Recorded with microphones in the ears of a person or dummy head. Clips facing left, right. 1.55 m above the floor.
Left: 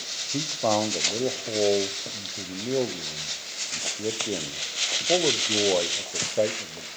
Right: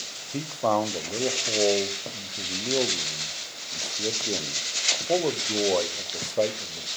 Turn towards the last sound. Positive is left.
turn(degrees=5)  # may be behind; listen again after turning